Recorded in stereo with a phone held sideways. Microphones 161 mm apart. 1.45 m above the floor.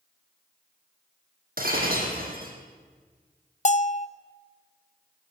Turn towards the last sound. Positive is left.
turn(degrees=50)  # may be behind; listen again after turning